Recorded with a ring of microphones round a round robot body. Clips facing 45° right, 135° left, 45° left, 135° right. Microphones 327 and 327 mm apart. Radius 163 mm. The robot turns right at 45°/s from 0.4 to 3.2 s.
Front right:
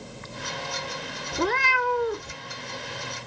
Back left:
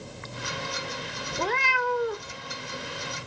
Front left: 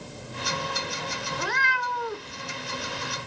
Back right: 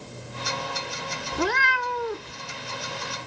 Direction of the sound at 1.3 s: 115° right.